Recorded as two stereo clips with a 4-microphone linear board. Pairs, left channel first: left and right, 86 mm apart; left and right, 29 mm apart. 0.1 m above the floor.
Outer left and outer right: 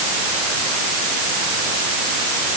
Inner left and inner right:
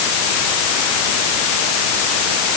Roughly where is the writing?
No writing in this recording.